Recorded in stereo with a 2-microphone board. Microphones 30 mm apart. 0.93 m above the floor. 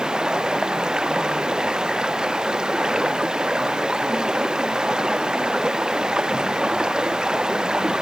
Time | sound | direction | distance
0.0 | running water | 30° right (ahead or behind) | ?